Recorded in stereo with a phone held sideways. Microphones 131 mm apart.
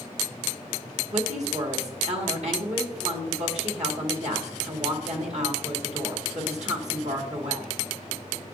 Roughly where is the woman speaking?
Right.